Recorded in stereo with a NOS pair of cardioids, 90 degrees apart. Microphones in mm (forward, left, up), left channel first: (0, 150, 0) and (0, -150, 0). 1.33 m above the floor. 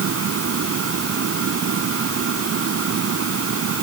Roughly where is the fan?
Ahead right.